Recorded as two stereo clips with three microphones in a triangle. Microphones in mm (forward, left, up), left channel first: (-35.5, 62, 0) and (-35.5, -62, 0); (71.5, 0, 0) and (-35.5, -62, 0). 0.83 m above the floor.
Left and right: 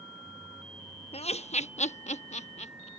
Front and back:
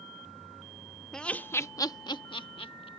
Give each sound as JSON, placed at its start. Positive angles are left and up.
{"t": 1.1, "sound": "laughter", "azimuth_deg": 115}